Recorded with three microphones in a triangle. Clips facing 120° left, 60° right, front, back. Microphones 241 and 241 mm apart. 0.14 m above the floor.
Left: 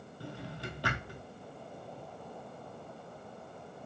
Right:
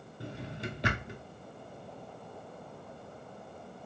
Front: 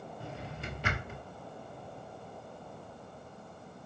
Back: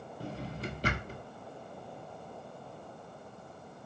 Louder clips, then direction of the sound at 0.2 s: Right 3 dB, back 7 dB; 130° right.